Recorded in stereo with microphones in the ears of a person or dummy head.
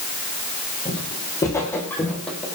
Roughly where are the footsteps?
Centre.